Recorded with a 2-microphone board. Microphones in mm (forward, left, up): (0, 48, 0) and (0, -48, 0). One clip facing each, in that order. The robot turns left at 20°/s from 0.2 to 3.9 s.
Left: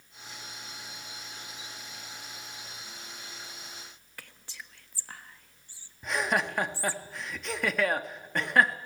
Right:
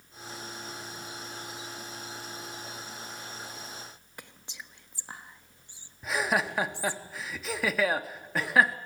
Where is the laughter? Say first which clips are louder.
Even; 5° right (ahead or behind), 0.8 m.